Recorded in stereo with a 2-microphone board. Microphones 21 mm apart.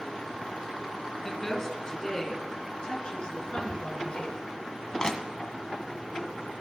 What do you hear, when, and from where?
1.2 s a woman speaking: 15° left (ahead or behind), 3 m; by 4.2 s 40° left (ahead or behind), 4.5 m
3.2 s ticking: 50° left (ahead or behind), 2 m
5.0 s crushing: 30° left (ahead or behind), 1.6 m